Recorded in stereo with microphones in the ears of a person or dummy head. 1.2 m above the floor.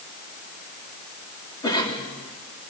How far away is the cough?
About 2.5 m.